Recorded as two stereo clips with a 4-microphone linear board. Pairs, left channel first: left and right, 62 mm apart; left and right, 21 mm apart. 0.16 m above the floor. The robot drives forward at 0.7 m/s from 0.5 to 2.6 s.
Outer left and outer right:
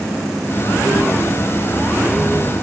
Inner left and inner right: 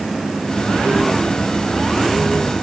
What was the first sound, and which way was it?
Only background noise.